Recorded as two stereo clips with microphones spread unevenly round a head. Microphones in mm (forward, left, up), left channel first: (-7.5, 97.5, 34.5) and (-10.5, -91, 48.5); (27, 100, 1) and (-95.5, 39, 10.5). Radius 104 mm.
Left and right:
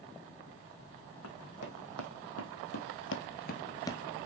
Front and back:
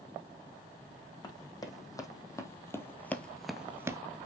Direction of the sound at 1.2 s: 90° left.